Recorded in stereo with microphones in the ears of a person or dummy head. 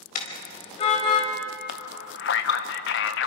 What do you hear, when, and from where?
0.1 s a car horn: 50° left (ahead or behind), 4.5 m; by 1.3 s 35° left (ahead or behind), 4.5 m
1.7 s a man speaking: 55° left (ahead or behind), 1.2 m